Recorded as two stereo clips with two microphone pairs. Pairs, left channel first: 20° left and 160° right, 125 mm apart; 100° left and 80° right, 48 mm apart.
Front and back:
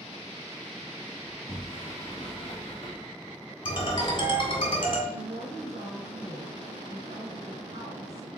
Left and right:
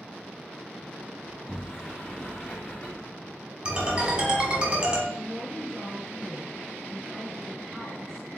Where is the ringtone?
10° right, 1.3 m.